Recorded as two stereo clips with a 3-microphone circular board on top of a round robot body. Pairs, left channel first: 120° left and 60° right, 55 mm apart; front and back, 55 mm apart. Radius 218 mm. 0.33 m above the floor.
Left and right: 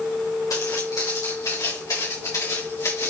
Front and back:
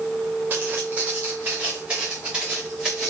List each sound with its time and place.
0.5 s footsteps: 120° left, 3.5 m; by 3.1 s 100° left, 4.5 m